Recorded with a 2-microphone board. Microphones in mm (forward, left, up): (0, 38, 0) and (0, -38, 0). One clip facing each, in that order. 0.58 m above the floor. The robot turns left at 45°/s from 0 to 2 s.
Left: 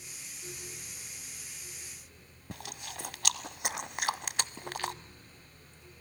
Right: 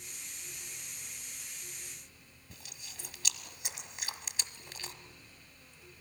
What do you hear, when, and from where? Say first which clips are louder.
2.5 s chewing: left 12 dB; 65° left (ahead or behind), 0.8 m